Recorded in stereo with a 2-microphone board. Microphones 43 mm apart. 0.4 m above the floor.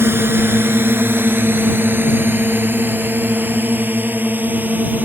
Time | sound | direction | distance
0.0 | a drone | 60° right (ahead or behind) | ?